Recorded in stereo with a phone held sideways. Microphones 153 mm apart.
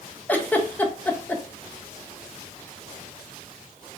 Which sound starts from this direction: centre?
A giggle, at 0.3 s.